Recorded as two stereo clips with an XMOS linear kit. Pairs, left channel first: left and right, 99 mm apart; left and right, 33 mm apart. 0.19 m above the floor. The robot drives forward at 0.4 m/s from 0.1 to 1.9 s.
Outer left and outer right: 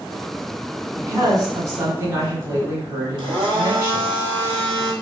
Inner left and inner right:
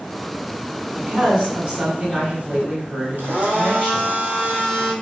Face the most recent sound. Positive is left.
turn(degrees=-55)  # may be behind; listen again after turning